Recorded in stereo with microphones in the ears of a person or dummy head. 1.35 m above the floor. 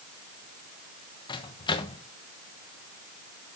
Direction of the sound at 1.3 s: 20° left (ahead or behind).